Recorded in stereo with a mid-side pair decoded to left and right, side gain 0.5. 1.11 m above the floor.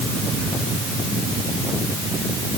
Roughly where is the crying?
No crying in this recording.